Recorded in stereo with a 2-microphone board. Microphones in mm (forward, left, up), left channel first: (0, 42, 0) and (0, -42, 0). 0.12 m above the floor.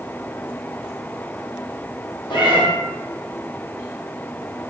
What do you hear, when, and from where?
2.3 s a cat meowing: 60° left (ahead or behind), 1.3 m